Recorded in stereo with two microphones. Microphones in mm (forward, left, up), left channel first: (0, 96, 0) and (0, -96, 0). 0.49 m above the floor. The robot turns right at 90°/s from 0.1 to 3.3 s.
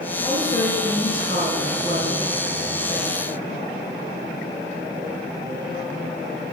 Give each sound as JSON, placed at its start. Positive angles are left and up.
{"t": 0.2, "sound": "a woman speaking", "azimuth_deg": 140, "distance_m": 5.0}